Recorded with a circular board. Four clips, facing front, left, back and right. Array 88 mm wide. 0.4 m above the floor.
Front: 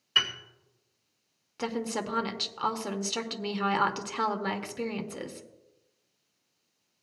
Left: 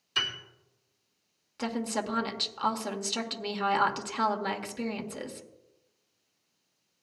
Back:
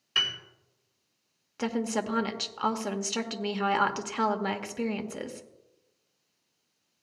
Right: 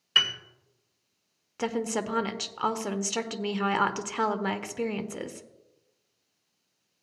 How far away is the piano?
About 2 m.